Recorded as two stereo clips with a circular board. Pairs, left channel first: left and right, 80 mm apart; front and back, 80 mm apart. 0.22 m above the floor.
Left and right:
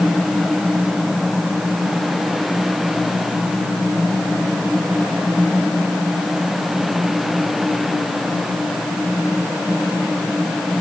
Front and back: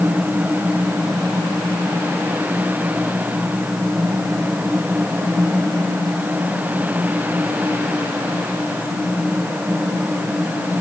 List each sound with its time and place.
Only background noise.